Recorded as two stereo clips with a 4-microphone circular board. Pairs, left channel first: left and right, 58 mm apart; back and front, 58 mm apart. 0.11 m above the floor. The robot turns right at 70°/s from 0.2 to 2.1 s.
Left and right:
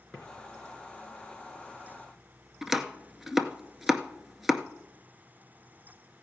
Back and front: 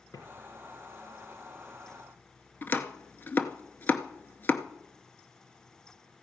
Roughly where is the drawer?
Behind.